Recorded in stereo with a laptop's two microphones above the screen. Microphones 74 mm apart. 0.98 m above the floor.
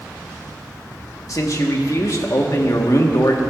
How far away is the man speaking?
About 1.4 m.